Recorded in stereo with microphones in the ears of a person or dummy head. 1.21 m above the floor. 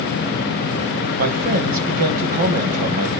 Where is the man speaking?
45° right (ahead or behind), 1.3 m.